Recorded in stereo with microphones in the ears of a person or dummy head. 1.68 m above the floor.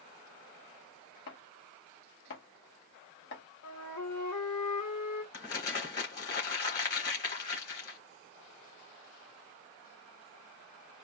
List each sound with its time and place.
1.3 s chopping: 60° left (ahead or behind), 1.3 m
3.6 s a flute: 80° left, 2 m
5.3 s crumpling: 40° left (ahead or behind), 1.5 m